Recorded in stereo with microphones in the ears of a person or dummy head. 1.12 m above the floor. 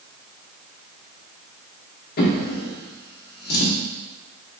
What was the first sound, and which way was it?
A drawer, 60° left (ahead or behind).